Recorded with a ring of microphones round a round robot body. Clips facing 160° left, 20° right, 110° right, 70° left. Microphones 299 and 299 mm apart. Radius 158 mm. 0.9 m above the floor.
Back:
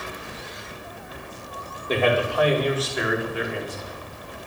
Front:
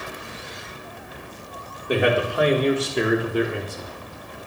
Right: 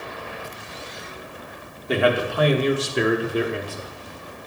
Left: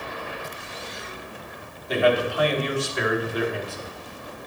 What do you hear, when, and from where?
1.9 s a man speaking: 100° right, 1.6 m; by 3.9 s 40° right, 1.3 m